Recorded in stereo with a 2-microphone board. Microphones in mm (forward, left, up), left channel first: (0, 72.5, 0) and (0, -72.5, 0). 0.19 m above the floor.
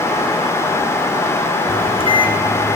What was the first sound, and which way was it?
A microwave, 40° left (ahead or behind).